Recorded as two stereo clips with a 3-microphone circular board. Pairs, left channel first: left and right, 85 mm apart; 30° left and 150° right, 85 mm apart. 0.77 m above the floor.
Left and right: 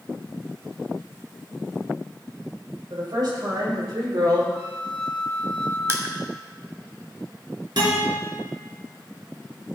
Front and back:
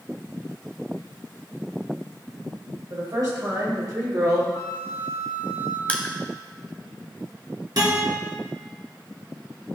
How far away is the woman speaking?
About 4 m.